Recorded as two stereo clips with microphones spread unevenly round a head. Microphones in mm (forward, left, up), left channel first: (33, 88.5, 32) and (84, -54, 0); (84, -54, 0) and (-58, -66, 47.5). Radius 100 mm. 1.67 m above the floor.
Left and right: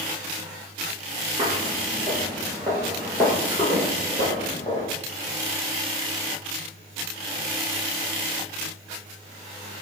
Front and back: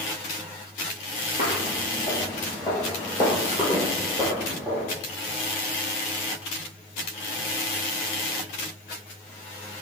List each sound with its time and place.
1.4 s footsteps: 15° right, 1.8 m; by 4.9 s 125° left, 2 m